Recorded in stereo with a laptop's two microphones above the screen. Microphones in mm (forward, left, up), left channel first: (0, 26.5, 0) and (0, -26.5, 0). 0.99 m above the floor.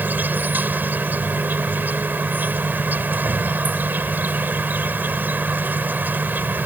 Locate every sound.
0.0 s an insect: 35° right (ahead or behind)